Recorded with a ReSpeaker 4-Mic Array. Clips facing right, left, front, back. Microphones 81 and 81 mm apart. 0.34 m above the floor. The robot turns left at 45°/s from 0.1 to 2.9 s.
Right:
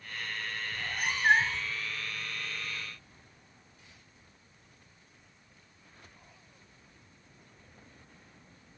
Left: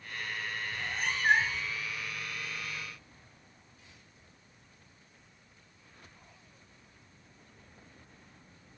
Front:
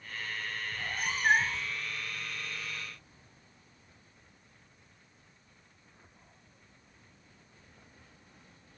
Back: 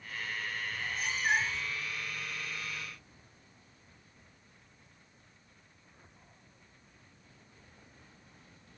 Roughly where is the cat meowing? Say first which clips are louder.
Right 1 dB, front 3 dB; ahead.